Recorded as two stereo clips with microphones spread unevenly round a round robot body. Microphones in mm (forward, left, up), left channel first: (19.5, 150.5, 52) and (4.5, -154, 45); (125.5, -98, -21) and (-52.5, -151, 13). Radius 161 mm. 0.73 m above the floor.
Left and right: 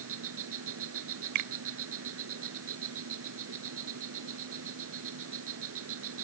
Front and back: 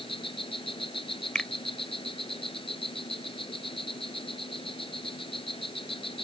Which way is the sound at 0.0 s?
45° right.